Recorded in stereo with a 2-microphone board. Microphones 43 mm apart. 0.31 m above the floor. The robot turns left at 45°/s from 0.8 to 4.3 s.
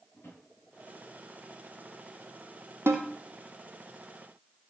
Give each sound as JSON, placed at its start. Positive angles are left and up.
{"t": 0.1, "sound": "a drawer", "side_deg": 90, "distance_m": 8.5}
{"t": 2.9, "sound": "a snare drum", "side_deg": -80, "distance_m": 2.0}